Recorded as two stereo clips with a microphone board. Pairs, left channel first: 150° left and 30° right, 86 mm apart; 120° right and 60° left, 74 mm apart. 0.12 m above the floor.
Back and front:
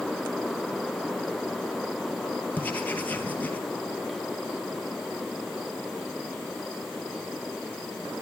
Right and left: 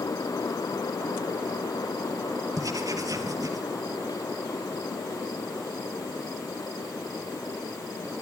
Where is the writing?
80° left, 3 m.